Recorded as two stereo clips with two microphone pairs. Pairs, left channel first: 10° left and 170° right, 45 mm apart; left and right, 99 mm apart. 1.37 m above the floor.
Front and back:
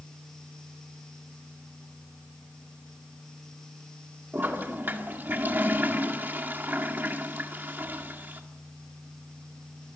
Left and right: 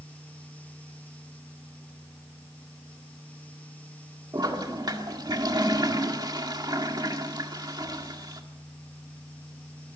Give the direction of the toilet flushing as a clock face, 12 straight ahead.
4 o'clock.